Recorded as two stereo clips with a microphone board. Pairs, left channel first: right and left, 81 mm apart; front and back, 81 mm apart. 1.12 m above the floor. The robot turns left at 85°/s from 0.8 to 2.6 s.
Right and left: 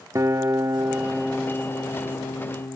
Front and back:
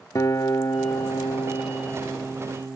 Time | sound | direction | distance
0.1 | a guitar | 40° left | ?